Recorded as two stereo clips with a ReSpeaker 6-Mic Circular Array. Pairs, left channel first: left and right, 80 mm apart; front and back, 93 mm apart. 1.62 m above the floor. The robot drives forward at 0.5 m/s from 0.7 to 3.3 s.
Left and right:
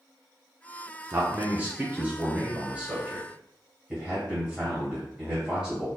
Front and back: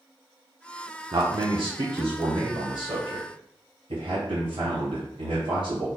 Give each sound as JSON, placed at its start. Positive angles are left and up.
{"t": 1.1, "sound": "a man speaking", "azimuth_deg": -140, "distance_m": 0.5}